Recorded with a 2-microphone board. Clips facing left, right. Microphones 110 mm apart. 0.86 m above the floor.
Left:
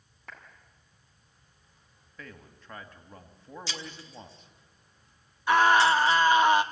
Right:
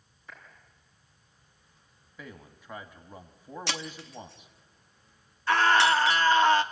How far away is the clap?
About 6 m.